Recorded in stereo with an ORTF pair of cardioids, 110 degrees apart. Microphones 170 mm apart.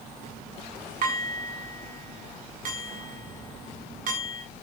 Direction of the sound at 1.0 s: 50° right.